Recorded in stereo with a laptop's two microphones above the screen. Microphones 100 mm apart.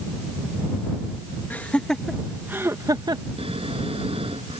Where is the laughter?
20° left (ahead or behind); by 3.2 s 50° right (ahead or behind).